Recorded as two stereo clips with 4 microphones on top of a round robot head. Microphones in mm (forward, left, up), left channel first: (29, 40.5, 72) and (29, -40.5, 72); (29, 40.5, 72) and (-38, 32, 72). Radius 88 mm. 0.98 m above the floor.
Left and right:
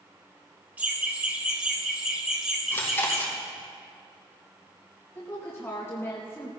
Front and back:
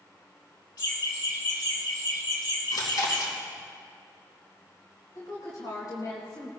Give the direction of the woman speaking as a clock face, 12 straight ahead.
11 o'clock.